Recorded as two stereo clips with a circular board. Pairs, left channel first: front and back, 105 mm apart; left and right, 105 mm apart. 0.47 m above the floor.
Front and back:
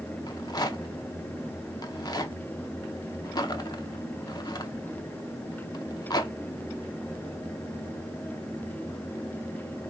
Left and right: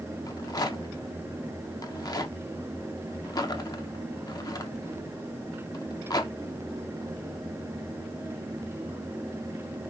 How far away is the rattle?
About 0.5 m.